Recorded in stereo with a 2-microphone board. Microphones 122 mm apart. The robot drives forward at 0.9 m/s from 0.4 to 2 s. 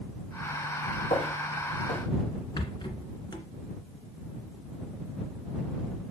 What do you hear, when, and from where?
1.1 s footsteps: 65° left (ahead or behind), 5.5 m; by 2.0 s 70° left (ahead or behind), 5 m
2.6 s a rattle: 40° left (ahead or behind), 1.5 m